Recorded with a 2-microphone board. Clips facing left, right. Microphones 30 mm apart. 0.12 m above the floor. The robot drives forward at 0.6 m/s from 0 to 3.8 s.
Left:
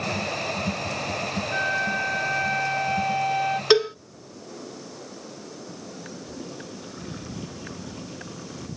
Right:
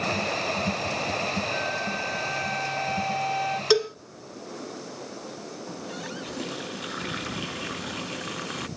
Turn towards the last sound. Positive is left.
turn(degrees=-85)